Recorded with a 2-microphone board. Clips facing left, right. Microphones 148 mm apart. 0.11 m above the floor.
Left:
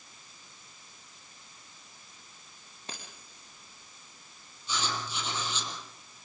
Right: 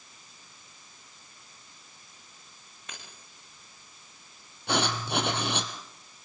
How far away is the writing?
About 2.5 m.